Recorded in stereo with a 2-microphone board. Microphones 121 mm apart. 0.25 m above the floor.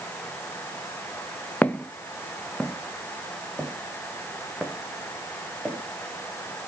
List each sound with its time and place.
1.6 s footsteps: 15° left (ahead or behind), 0.6 m; by 5.8 s 5° right (ahead or behind), 3 m